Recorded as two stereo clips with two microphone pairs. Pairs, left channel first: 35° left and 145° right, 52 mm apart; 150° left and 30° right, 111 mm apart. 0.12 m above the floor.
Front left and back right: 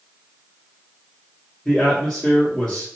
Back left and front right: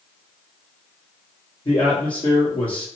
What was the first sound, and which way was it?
A man speaking, 115° left.